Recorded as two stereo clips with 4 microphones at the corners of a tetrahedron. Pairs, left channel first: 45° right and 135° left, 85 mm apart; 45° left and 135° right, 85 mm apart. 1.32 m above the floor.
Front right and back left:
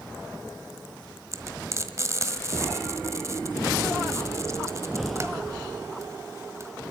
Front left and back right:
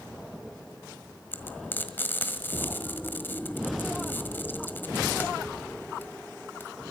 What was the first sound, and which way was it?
Frying, 100° left.